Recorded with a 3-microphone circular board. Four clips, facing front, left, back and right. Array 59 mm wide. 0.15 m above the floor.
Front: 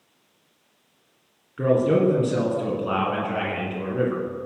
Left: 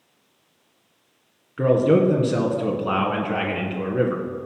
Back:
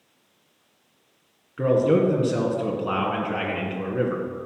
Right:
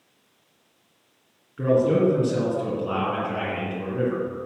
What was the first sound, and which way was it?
A man speaking, 100° left.